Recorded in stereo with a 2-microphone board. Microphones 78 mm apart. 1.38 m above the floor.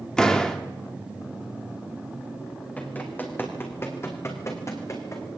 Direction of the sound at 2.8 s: 20° left (ahead or behind).